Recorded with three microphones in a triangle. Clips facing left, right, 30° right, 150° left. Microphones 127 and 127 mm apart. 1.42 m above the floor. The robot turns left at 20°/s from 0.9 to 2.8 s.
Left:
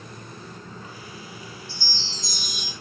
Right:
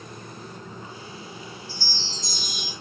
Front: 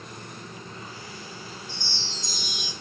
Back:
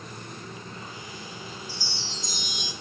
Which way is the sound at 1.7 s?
70° left.